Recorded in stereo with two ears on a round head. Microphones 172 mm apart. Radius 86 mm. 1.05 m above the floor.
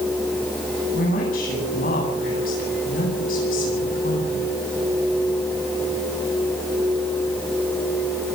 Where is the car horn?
No car horn in this recording.